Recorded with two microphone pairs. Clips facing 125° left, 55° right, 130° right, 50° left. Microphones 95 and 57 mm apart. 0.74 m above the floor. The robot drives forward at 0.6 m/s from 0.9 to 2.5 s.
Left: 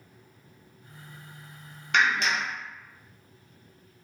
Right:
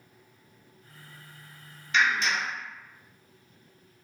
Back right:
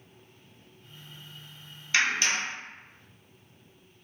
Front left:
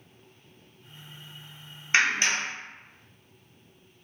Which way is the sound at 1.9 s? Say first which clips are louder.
Left 1 dB, front left 2 dB; 105° left.